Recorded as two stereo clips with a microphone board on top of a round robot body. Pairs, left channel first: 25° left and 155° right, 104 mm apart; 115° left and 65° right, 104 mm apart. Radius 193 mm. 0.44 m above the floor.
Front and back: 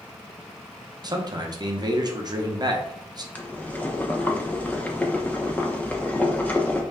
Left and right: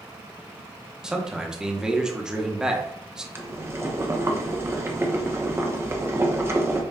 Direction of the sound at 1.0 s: 145° right.